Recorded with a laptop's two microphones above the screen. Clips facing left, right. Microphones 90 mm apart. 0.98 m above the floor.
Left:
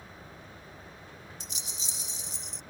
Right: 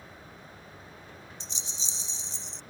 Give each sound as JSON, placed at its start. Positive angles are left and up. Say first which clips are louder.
{"t": 1.4, "sound": "a rattle", "louder": "right 1 dB", "side_deg": -30}